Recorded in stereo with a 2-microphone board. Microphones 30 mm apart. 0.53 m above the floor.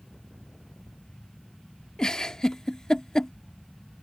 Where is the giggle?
25° left (ahead or behind).